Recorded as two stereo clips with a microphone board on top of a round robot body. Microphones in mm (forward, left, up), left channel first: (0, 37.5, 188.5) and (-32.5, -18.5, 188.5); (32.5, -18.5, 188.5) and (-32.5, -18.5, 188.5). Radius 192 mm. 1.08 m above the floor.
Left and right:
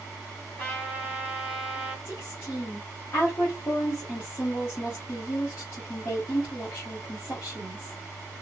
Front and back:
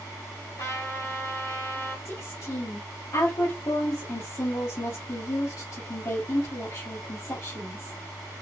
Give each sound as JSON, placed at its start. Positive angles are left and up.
{"t": 0.6, "sound": "a trumpet", "azimuth_deg": 10, "distance_m": 2.5}
{"t": 2.0, "sound": "a woman speaking", "azimuth_deg": 25, "distance_m": 1.4}